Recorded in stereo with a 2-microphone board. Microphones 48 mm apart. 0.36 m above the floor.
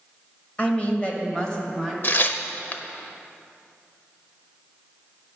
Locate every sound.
0.6 s a woman speaking: 30° left (ahead or behind), 1.2 m; by 1.9 s 15° left (ahead or behind), 1.6 m
2.0 s tearing paper: 40° left (ahead or behind), 0.5 m